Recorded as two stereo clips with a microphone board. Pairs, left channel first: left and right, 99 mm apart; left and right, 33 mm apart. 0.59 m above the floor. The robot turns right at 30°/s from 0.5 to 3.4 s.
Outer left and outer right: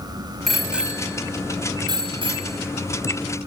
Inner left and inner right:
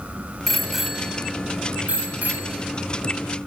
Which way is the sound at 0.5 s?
Centre (ahead or behind).